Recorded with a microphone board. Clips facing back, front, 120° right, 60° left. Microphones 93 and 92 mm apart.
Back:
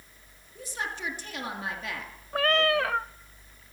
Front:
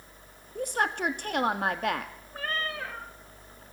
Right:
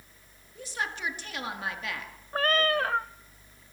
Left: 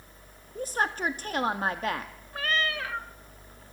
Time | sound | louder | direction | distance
0.6 | a woman speaking | front 7 dB, left 6 dB | 20° left | 1.8 m
2.3 | a cat meowing | back 10 dB, right 5 dB | 165° right | 0.6 m